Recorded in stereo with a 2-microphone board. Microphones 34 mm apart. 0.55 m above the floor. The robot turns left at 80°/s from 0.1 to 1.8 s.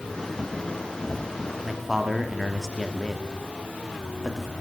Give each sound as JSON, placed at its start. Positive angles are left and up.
{"t": 1.6, "sound": "a man speaking", "side_deg": -5, "distance_m": 1.0}